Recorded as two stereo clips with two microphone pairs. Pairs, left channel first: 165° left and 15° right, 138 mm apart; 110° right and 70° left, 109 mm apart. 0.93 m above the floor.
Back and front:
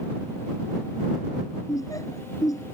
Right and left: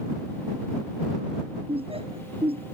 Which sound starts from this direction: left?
Laughter, at 1.7 s.